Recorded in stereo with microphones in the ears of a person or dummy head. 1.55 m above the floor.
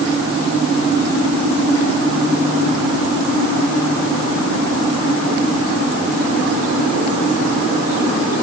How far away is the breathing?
No breathing in this recording.